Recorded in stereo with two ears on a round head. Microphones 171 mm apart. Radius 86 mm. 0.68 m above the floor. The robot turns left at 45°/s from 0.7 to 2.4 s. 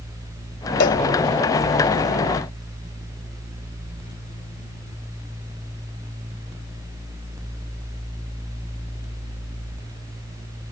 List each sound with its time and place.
0.8 s a cowbell: 60° left (ahead or behind); by 1.0 s 50° left (ahead or behind)